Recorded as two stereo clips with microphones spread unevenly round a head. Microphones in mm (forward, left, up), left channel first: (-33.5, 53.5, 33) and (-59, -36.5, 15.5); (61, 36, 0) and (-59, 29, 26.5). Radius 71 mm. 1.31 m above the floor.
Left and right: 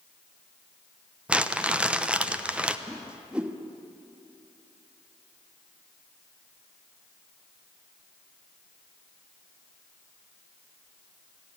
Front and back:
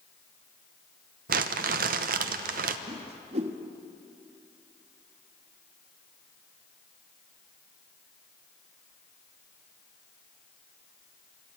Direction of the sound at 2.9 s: 170° left.